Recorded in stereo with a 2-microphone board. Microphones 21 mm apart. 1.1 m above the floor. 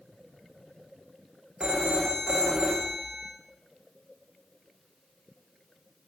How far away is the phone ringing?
About 1.4 m.